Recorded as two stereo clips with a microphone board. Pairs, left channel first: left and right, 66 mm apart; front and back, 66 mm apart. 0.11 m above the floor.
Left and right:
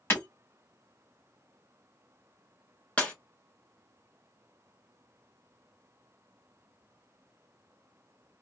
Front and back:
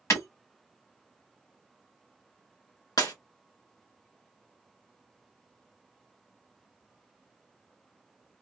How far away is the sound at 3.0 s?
About 2.0 m.